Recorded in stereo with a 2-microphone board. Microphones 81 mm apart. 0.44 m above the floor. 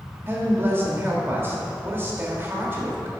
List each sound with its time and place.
0.3 s a man speaking: 30° right (ahead or behind), 1.3 m